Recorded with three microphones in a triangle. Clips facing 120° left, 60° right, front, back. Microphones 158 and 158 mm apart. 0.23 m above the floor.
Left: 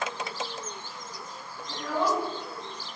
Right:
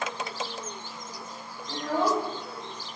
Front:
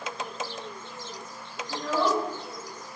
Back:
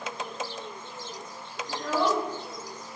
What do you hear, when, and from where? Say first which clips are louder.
1.7 s a child speaking: right 2 dB, even; 110° right, 1.2 m